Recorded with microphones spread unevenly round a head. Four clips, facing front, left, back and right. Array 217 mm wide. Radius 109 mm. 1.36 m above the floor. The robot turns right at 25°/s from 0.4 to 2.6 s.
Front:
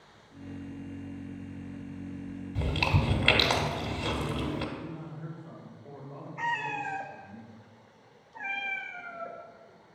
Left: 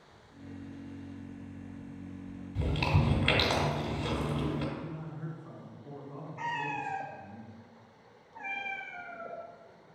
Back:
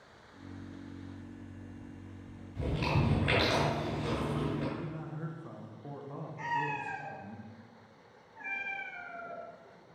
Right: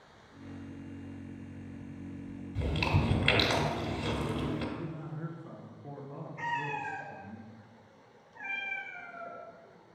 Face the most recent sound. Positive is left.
turn(degrees=30)